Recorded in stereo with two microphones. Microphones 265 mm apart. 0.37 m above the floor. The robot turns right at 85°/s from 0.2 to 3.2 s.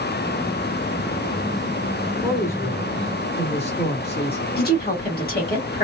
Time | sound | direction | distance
2.2 | a man speaking | centre (ahead or behind) | 1.5 m
4.6 | a woman speaking | 35° left (ahead or behind) | 2 m